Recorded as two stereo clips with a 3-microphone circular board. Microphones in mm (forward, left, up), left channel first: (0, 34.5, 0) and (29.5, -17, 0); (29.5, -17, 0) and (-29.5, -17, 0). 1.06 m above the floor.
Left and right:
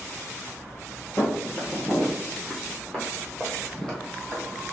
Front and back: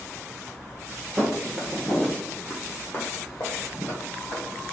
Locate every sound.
1.2 s footsteps: 110° left, 1.3 m; by 4.6 s 35° left, 2.5 m